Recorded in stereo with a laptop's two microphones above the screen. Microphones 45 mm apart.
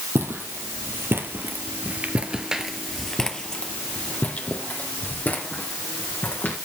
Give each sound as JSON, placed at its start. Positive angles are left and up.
{"t": 0.1, "sound": "footsteps", "side_deg": -65, "distance_m": 2.0}